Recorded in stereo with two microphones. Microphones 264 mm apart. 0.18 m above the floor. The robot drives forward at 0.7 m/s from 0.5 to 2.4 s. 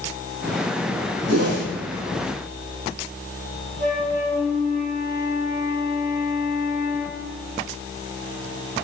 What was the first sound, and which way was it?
A whoosh, 70° right (ahead or behind).